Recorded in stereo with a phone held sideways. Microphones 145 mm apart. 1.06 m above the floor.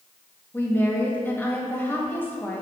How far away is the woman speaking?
About 1.3 m.